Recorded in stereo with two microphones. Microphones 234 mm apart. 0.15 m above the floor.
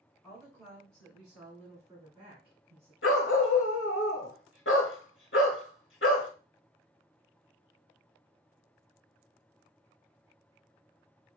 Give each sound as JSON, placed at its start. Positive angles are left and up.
{"t": 0.2, "sound": "a woman speaking", "side_deg": 15, "distance_m": 1.6}
{"t": 3.0, "sound": "a dog barking", "side_deg": 60, "distance_m": 0.7}